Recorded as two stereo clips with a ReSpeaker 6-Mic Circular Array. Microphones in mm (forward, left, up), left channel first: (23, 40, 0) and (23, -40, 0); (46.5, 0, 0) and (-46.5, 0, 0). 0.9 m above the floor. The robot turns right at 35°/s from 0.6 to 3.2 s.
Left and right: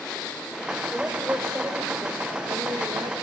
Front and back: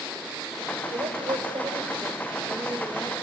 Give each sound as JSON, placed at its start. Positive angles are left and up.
{"t": 0.9, "sound": "a woman speaking", "azimuth_deg": -170, "distance_m": 3.5}